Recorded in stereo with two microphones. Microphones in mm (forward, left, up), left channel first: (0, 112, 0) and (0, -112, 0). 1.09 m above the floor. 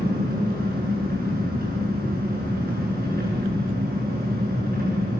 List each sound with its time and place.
0.0 s an engine running: 40° right (ahead or behind), 7 m